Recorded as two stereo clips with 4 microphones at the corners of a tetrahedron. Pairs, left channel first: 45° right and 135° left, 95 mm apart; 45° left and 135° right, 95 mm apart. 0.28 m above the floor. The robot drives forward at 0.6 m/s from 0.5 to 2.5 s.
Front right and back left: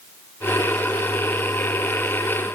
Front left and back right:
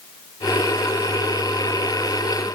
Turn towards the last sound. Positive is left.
No sound to turn to.